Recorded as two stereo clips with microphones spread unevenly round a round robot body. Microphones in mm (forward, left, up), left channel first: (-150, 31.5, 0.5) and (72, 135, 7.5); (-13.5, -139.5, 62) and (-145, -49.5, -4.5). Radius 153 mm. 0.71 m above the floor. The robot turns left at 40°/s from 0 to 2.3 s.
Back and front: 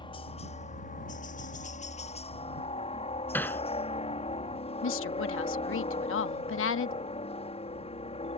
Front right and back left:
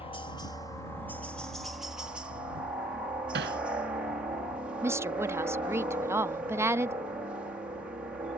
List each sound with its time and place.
0.0 s a helicopter: 100° right; by 8.4 s 170° left
3.3 s hammering: 125° left
4.8 s a woman speaking: 165° right